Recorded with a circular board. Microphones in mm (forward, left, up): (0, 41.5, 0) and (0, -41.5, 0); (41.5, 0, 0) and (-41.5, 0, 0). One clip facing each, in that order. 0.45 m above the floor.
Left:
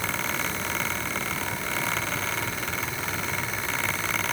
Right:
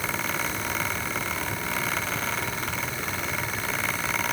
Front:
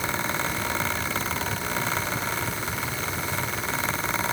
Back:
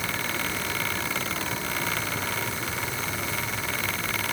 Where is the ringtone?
I don't hear a ringtone.